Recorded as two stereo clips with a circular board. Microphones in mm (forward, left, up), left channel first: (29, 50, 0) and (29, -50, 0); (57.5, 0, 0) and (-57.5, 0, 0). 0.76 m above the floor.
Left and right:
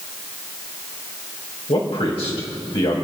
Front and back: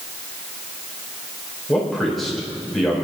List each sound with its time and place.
1.7 s a man speaking: 90° left, 3.5 m